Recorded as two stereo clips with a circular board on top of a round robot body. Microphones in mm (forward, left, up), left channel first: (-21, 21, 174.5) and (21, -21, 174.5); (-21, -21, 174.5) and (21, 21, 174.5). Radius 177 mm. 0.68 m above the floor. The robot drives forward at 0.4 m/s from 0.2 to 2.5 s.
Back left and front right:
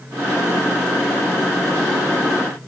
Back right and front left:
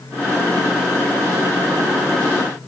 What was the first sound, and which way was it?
Only background noise.